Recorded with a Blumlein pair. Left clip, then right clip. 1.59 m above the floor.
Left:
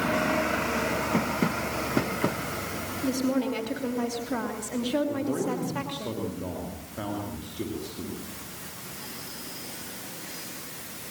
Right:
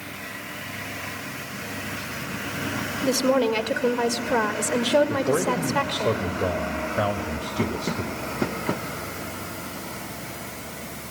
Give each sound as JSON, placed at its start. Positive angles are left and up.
{"t": 3.0, "sound": "a woman speaking", "azimuth_deg": -65, "distance_m": 3.0}
{"t": 5.1, "sound": "a man speaking", "azimuth_deg": -65, "distance_m": 3.0}